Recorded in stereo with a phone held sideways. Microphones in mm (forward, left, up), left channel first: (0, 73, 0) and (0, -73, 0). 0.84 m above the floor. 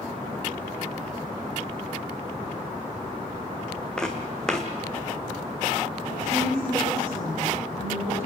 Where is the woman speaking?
45° left (ahead or behind), 9.5 m.